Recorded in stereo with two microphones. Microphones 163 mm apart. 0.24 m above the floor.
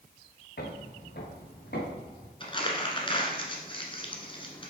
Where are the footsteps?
80° left, 1.9 m; by 2.3 s 85° left, 3 m.